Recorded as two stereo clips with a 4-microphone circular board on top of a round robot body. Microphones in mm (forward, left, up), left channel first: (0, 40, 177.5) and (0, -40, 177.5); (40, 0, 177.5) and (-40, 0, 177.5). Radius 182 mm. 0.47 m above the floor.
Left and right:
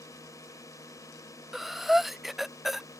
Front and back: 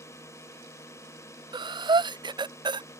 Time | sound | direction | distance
0.0 | a drone | 50° left | ?
1.5 | breathing | straight behind | ?